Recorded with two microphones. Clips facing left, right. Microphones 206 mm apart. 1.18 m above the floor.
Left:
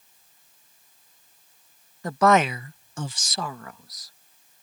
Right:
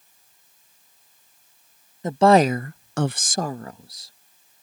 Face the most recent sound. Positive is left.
turn(degrees=-25)  # may be behind; listen again after turning